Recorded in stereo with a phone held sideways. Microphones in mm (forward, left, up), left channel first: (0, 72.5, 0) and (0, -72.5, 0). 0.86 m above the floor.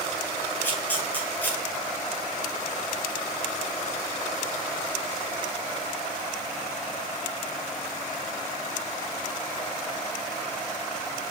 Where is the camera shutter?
15° left (ahead or behind), 1.0 m.